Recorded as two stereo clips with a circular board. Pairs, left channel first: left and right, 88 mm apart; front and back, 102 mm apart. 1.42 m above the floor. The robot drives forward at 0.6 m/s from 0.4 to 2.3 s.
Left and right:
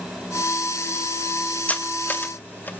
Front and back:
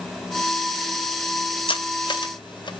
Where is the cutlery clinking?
20° left, 1.6 m; by 2.8 s 25° left, 1.3 m.